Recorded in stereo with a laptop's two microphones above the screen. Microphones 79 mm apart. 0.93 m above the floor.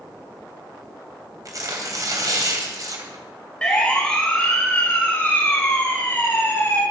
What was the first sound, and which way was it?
Tearing paper, 50° right (ahead or behind).